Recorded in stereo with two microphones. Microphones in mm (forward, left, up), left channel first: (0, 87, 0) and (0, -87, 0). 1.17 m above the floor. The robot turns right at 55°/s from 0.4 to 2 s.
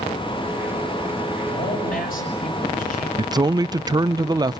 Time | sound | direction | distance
1.5 | a man speaking | 80° left | 8 m
3.2 | a man speaking | 20° right (ahead or behind) | 0.5 m